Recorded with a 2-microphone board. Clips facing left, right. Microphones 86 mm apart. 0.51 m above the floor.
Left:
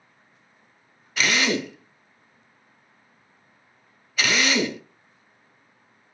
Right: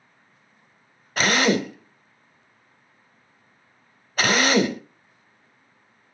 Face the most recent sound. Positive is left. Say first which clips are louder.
# right 3 dB
turn(degrees=-45)  # may be behind; listen again after turning